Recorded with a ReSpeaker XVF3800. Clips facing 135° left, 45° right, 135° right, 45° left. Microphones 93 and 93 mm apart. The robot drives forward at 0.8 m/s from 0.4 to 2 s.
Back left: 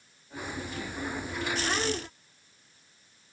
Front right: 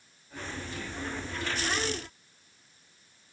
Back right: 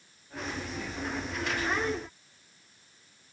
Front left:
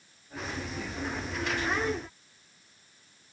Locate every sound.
Only background noise.